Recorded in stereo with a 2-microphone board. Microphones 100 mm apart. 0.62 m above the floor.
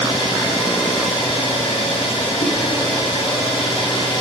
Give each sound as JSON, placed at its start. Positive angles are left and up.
{"t": 0.0, "sound": "an engine running", "side_deg": 60, "distance_m": 7.5}
{"t": 2.4, "sound": "a whoosh", "side_deg": 65, "distance_m": 6.5}